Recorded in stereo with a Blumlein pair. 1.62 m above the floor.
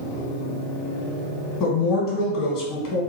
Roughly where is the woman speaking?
Ahead left.